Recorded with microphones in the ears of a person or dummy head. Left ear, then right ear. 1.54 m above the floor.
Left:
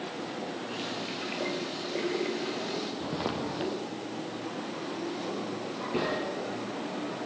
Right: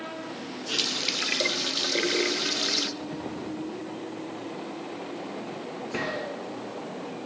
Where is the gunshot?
50° right (ahead or behind), 7 m.